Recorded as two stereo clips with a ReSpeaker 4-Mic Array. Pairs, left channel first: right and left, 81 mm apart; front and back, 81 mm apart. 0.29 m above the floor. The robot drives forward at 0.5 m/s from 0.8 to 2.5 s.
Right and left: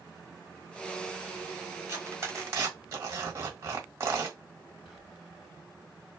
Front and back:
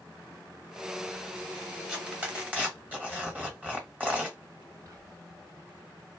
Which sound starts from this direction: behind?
Whispering, at 4.8 s.